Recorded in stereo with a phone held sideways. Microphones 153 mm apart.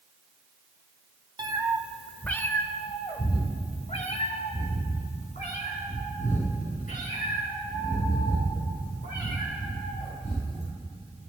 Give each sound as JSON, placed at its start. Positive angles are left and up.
{"t": 1.4, "sound": "a cat meowing", "side_deg": -30, "distance_m": 0.8}